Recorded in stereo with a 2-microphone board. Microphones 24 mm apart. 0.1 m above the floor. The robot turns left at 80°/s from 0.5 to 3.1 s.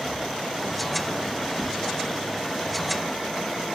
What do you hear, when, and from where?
1.6 s a whoosh: 70° right (ahead or behind), 8.5 m; by 1.7 s 80° right, 8.5 m